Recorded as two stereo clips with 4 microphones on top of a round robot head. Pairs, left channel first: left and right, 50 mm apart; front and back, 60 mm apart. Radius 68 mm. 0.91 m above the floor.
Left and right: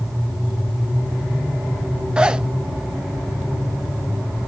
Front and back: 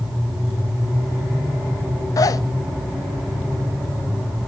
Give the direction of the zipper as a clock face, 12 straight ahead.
1 o'clock.